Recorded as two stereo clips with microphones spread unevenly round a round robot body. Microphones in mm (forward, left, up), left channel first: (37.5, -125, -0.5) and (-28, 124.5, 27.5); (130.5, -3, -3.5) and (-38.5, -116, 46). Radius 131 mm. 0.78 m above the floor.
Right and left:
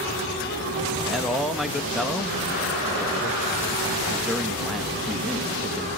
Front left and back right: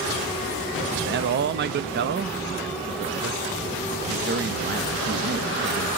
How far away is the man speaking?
About 0.7 m.